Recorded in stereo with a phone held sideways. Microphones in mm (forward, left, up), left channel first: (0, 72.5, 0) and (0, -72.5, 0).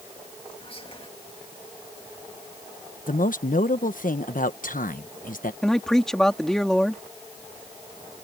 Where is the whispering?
40° left (ahead or behind).